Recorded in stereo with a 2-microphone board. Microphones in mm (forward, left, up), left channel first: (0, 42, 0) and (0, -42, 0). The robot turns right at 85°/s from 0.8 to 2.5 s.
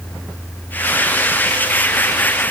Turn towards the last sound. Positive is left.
No sound to turn to.